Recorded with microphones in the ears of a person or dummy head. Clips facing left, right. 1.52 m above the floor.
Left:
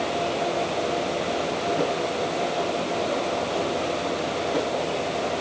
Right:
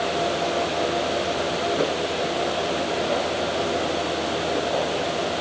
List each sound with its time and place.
Only background noise.